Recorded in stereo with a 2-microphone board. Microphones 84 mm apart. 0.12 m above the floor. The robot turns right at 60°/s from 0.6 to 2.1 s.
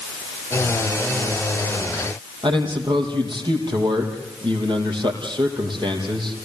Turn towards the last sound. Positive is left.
turn(degrees=-70)  # may be behind; listen again after turning